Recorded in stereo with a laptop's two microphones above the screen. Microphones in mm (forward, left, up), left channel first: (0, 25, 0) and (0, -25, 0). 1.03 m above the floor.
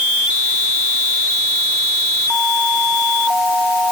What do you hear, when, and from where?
Only background noise.